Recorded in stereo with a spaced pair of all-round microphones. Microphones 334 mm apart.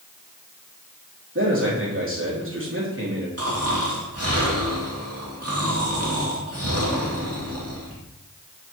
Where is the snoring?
50° right (ahead or behind), 2 m.